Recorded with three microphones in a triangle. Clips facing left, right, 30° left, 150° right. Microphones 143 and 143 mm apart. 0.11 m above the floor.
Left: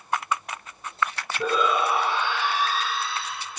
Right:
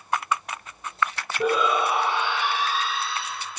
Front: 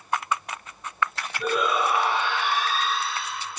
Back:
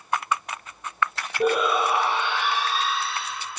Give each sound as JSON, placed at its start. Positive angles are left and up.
{"t": 1.4, "sound": "a shout", "azimuth_deg": -160, "distance_m": 4.0}